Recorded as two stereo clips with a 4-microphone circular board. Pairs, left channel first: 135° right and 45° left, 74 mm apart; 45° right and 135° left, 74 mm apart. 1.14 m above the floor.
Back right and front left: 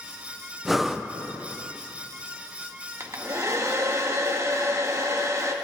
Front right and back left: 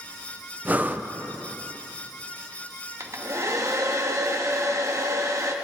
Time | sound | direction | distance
0.7 | breathing | 130° left | 0.5 m
3.0 | a hair dryer | 90° left | 1.0 m